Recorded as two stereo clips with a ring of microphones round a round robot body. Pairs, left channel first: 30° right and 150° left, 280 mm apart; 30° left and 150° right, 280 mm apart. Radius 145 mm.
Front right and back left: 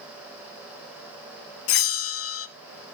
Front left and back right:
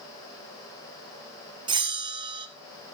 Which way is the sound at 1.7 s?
75° right.